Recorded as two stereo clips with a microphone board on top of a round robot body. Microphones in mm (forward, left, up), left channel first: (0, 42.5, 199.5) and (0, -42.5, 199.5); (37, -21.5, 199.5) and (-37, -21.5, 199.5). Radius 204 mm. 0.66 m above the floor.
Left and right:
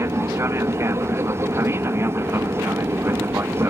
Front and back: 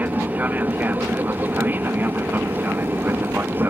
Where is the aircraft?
130° right; by 3.7 s 135° right.